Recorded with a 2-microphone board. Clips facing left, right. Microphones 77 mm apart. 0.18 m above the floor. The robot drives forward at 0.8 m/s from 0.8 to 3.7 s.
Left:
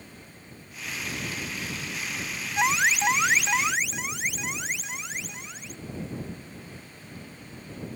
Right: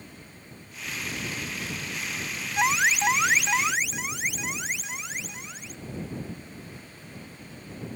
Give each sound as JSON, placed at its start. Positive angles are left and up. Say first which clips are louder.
{"t": 2.6, "sound": "an alarm", "louder": "even", "side_deg": 0}